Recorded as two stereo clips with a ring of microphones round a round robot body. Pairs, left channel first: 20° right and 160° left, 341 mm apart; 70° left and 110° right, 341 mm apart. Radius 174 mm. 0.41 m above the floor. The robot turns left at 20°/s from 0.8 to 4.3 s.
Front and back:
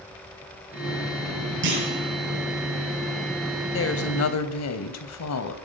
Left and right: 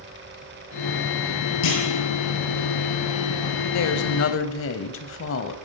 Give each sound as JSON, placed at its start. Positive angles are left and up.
{"t": 1.6, "sound": "a clunk", "azimuth_deg": 100, "distance_m": 9.5}
{"t": 3.7, "sound": "a woman speaking", "azimuth_deg": 30, "distance_m": 2.5}